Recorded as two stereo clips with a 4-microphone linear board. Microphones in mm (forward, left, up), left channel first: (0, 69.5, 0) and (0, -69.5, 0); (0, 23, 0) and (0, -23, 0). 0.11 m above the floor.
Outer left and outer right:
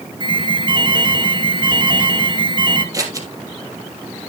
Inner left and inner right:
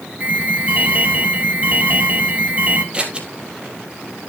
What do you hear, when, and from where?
0.2 s an alarm: 35° right (ahead or behind), 3.5 m
2.9 s scissors: 25° right (ahead or behind), 3 m